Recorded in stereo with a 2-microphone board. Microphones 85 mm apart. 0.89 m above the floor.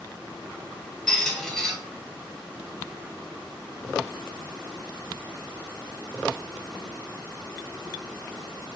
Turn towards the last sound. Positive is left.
turn(degrees=5)  # may be behind; listen again after turning